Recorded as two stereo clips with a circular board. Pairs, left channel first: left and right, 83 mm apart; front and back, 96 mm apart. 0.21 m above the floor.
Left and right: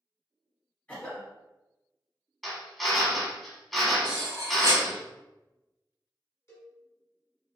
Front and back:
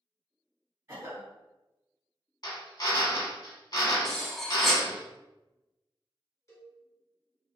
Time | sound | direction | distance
0.9 | a cough | 150° left | 1.2 m
2.4 | a drill | straight ahead | 0.8 m
4.0 | cutlery clinking | 85° right | 0.9 m
6.5 | a cowbell | 45° left | 1.3 m